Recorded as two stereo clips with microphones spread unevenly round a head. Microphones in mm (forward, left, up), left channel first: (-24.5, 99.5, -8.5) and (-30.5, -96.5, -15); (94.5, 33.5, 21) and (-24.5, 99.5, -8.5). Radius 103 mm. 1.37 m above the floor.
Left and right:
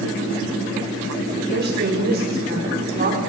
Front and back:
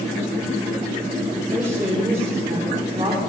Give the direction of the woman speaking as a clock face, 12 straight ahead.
4 o'clock.